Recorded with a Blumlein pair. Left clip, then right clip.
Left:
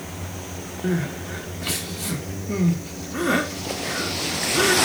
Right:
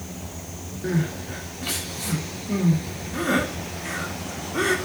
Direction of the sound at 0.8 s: 5° left.